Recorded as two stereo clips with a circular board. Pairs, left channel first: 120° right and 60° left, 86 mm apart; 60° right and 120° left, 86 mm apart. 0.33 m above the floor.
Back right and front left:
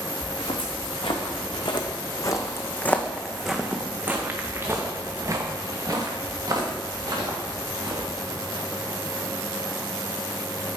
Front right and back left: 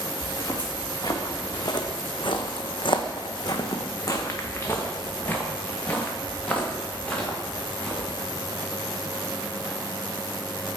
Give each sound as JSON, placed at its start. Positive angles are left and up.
{"t": 0.2, "sound": "footsteps", "azimuth_deg": -115, "distance_m": 1.5}